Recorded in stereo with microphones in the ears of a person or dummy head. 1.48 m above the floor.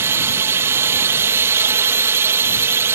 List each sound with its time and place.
0.0 s a drone: 15° right (ahead or behind)